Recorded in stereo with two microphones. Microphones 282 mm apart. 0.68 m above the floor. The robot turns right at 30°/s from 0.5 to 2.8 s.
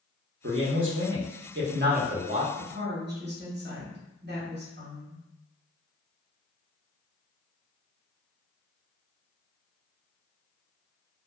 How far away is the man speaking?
About 0.7 m.